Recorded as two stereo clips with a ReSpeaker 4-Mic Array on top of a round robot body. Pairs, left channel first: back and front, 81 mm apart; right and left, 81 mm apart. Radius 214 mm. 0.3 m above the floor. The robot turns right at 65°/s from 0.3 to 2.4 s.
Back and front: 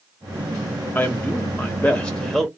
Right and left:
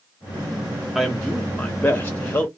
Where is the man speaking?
170° left, 1.1 m; by 2.5 s 95° right, 1.1 m.